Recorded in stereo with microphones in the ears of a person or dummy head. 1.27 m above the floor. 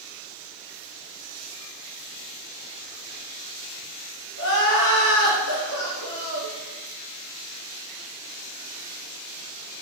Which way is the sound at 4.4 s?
75° left (ahead or behind).